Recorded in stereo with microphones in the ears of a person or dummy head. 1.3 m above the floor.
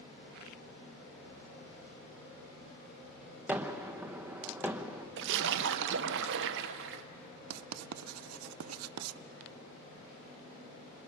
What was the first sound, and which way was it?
A gunshot, 15° right (ahead or behind).